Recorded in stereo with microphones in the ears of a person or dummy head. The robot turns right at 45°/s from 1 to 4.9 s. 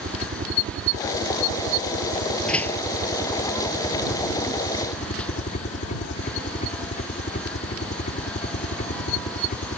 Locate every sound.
0.0 s a helicopter: 125° right; by 9.8 s 50° left
2.5 s a door slam: 5° left (ahead or behind); by 2.8 s 25° left (ahead or behind)